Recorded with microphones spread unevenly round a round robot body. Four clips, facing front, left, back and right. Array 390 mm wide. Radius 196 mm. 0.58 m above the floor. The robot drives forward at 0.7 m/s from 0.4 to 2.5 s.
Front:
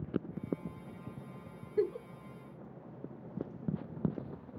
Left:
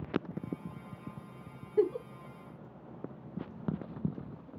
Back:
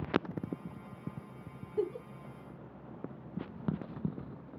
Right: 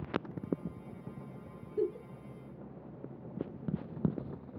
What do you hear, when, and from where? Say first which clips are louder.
1.8 s a giggle: left 5 dB, front 2 dB; 85° left, 0.8 m; by 2.1 s 100° left, 0.8 m